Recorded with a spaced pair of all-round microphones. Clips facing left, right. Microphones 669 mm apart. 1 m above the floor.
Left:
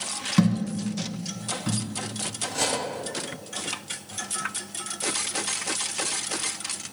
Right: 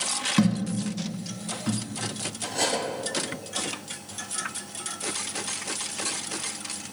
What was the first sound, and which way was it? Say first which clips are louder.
A thud: even; 15° left (ahead or behind).